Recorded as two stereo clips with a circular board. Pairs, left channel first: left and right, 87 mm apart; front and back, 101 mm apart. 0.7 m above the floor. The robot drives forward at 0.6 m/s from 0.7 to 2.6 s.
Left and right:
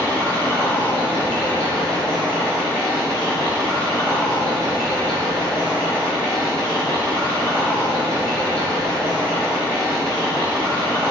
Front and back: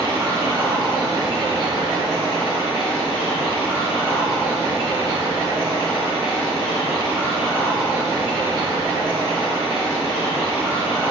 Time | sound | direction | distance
0.0 | running water | 145° left | 0.9 m